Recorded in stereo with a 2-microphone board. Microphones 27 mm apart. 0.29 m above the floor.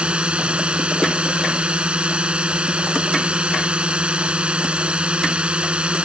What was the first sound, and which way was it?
A drone, 50° right (ahead or behind).